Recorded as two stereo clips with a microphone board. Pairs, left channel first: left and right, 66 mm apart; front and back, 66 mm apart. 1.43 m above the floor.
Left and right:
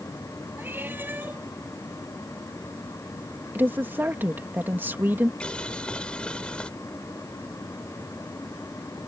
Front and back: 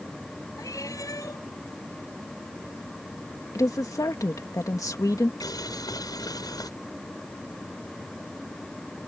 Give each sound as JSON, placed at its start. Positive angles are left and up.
{"t": 0.6, "sound": "a cat meowing", "azimuth_deg": -30}
{"t": 3.5, "sound": "a woman speaking", "azimuth_deg": -30}
{"t": 5.4, "sound": "boiling", "azimuth_deg": 15}